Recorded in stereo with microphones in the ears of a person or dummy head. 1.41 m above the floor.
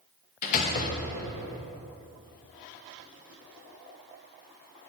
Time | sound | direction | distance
0.4 | a door slam | 45° left (ahead or behind) | 1.2 m